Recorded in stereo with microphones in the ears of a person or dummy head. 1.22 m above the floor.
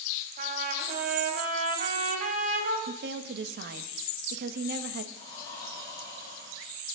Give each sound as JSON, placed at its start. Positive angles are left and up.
{"t": 0.4, "sound": "a trumpet", "side_deg": -50, "distance_m": 3.0}
{"t": 2.9, "sound": "a woman speaking", "side_deg": -65, "distance_m": 1.2}
{"t": 5.1, "sound": "breathing", "side_deg": 20, "distance_m": 3.5}